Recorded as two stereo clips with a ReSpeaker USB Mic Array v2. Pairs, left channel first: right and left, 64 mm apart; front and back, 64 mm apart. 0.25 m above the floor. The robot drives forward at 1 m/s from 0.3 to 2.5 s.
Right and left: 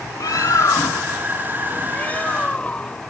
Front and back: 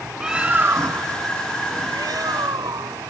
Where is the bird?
100° right; by 3.1 s 160° right.